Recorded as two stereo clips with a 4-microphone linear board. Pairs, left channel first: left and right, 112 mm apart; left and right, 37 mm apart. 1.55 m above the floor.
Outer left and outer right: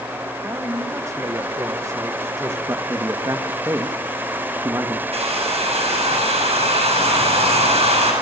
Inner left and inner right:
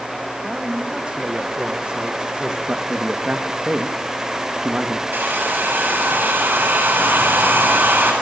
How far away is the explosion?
No explosion in this recording.